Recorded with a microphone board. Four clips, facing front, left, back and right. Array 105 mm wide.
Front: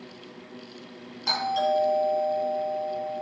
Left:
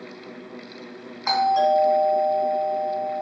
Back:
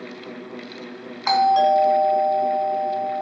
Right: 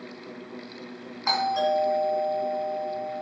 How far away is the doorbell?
About 2.5 m.